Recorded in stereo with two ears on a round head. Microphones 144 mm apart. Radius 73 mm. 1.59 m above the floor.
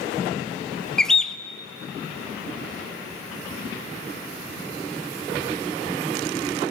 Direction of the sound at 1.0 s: 5° left (ahead or behind).